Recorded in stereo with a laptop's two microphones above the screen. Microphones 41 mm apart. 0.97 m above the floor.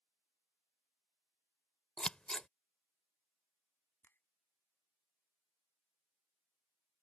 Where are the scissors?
20° left (ahead or behind).